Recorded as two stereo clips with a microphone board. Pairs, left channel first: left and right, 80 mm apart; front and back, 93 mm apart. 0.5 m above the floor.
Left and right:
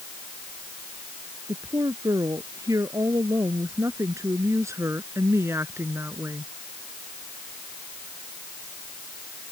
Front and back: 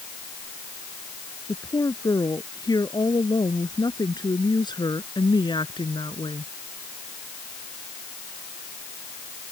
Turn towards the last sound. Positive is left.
turn(degrees=-30)